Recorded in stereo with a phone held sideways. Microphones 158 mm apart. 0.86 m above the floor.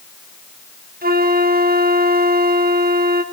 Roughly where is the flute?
Right.